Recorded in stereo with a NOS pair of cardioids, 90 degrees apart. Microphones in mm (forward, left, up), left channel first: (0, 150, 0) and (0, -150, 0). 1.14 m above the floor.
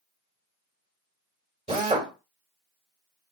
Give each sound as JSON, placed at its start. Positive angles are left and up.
{"t": 1.7, "sound": "a drill", "azimuth_deg": -20, "distance_m": 1.7}